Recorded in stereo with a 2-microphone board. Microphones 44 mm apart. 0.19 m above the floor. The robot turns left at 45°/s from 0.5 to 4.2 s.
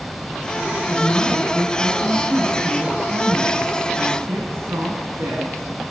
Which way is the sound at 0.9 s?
45° left.